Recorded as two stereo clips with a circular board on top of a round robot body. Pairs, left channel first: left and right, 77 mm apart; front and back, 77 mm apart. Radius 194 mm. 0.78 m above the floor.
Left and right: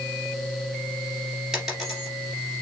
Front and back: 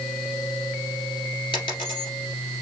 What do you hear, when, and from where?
1.5 s a dropped coin: 5° right, 2 m